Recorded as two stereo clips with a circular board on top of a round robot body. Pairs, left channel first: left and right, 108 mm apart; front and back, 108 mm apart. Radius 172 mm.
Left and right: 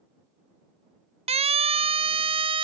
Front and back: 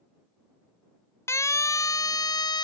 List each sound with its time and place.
1.3 s a siren: 65° right; by 2.6 s 50° right